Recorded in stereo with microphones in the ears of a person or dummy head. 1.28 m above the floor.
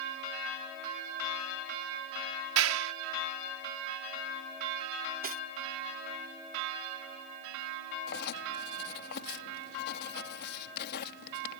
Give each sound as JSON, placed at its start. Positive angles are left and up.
{"t": 2.6, "sound": "a clap", "side_deg": -80}
{"t": 5.2, "sound": "cutlery clinking", "side_deg": -40}
{"t": 8.1, "sound": "writing", "side_deg": 55}